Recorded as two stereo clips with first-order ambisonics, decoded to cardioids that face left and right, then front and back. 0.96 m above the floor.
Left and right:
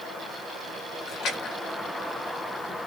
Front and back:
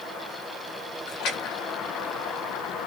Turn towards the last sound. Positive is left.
turn(degrees=40)